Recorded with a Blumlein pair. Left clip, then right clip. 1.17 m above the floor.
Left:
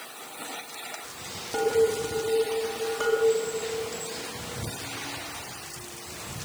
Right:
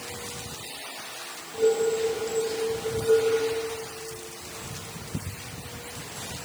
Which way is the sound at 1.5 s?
35° left.